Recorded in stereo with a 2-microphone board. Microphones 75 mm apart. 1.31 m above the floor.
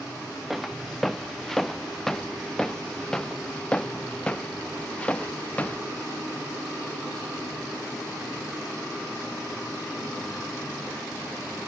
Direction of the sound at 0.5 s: Centre (ahead or behind).